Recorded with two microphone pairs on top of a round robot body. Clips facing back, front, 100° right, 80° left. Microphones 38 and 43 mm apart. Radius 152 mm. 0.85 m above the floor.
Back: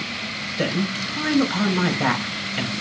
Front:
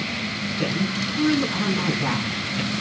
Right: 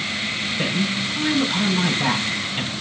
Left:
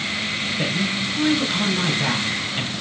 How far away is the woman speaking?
About 7 m.